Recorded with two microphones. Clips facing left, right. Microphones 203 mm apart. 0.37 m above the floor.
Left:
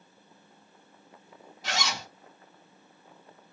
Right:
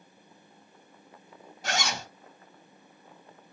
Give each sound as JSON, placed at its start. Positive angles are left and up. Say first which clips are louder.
{"t": 1.6, "sound": "a zipper", "louder": "right 2 dB", "side_deg": -50, "distance_m": 1.0}